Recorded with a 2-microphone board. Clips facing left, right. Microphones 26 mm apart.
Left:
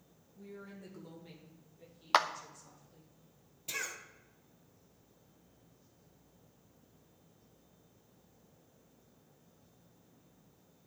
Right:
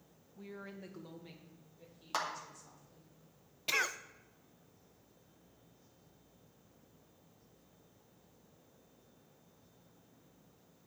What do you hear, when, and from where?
0.3 s a woman speaking: 45° right (ahead or behind), 1.4 m; by 3.1 s 10° left (ahead or behind), 4 m
2.1 s a clap: 50° left (ahead or behind), 0.6 m
3.7 s a cough: 50° right (ahead or behind), 0.5 m